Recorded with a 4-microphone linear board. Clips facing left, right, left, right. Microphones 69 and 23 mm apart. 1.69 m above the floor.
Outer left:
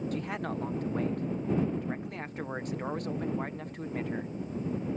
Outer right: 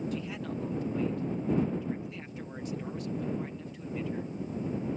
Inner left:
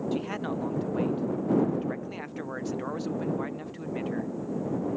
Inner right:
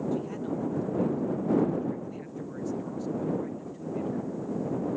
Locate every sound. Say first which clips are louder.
0.1 s a man speaking: outer left 2 dB, inner left 1 dB; 50° left (ahead or behind)